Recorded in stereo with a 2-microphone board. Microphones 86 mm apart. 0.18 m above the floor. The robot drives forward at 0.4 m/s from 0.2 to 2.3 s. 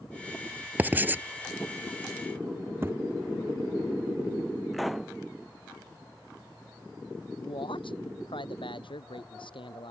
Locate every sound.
0.8 s writing: 20° right (ahead or behind); by 1.2 s 25° right (ahead or behind)
2.8 s a thud: 25° right (ahead or behind)
4.7 s a pop: centre (ahead or behind)
7.4 s a man speaking: 80° left